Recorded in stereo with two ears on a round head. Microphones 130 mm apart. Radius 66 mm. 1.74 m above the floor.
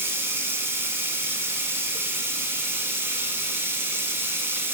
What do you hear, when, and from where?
0.0 s running water: 15° right (ahead or behind), 2 m